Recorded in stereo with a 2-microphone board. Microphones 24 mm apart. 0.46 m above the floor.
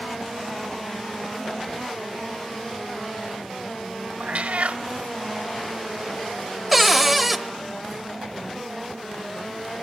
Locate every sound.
4.2 s a cat meowing: 60° right (ahead or behind), 0.5 m
6.7 s a cupboard door: 5° right (ahead or behind), 0.9 m